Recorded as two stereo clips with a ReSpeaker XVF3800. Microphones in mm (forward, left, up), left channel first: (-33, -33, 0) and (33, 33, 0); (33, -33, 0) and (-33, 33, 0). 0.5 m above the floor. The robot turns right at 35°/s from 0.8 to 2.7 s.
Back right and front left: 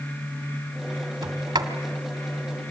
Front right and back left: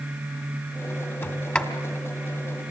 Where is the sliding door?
15° left, 1.6 m; by 1.7 s 30° left, 1.6 m.